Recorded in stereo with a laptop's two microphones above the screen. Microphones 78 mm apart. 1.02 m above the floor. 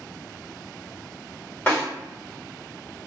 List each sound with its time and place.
1.7 s a snare drum: 20° left (ahead or behind), 1.3 m